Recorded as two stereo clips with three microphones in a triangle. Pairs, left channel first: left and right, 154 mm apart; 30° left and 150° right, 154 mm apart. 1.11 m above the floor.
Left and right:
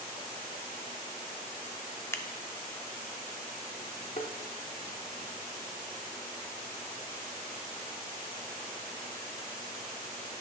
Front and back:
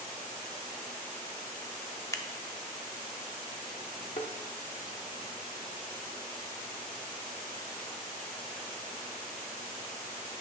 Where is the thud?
65° left, 1.0 m.